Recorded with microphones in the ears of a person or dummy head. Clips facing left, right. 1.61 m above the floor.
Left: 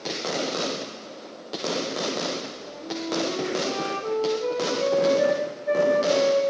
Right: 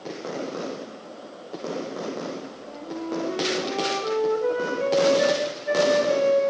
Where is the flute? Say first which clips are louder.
Right 1 dB; 5° right (ahead or behind), 4 m.